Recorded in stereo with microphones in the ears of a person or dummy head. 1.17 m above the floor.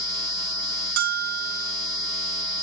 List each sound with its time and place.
1.0 s a bell: 50° right (ahead or behind), 0.9 m